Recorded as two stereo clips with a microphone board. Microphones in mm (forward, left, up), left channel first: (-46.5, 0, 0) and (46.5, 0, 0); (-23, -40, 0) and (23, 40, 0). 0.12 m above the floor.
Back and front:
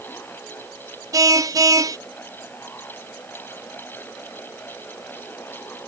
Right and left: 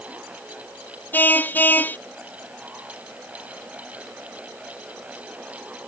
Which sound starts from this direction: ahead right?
A car horn, at 1.1 s.